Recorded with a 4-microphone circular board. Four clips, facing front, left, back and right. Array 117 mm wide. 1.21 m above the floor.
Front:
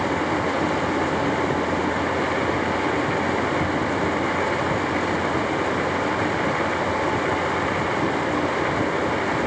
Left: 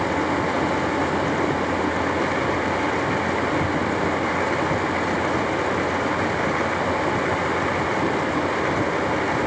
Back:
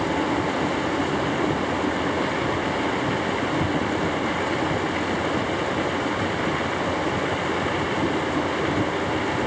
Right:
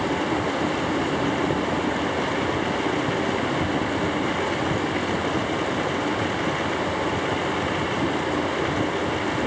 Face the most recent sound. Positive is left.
No sound to turn to.